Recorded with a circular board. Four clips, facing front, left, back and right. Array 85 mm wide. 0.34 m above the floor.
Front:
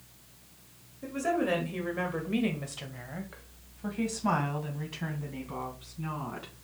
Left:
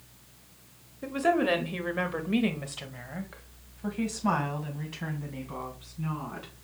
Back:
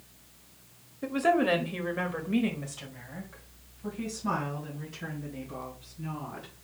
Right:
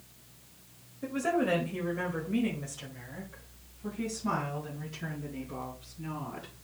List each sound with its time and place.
1.0 s a woman speaking: 150° left, 1.3 m; by 6.5 s 40° left, 3.5 m